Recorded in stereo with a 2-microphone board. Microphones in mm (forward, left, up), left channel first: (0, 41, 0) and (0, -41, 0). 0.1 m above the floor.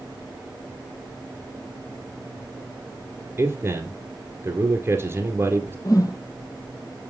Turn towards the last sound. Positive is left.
turn(degrees=50)  # may be behind; listen again after turning